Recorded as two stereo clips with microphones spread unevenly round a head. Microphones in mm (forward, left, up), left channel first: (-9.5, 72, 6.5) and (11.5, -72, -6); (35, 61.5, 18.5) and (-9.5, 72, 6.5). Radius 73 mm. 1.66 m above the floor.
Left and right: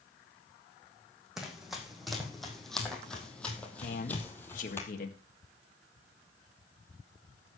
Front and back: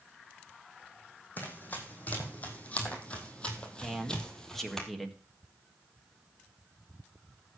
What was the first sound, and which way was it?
Running footsteps, 10° left.